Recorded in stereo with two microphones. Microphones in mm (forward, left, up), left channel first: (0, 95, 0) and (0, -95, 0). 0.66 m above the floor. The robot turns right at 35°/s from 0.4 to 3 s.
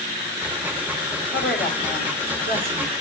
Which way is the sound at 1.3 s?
85° left.